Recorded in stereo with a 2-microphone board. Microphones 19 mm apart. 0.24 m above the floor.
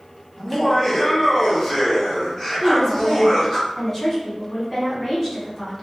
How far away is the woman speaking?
About 1.8 m.